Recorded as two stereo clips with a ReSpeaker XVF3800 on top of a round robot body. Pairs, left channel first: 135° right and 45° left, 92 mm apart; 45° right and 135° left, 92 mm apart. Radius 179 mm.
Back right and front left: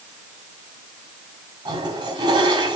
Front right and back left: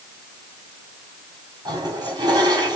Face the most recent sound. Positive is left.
turn(degrees=85)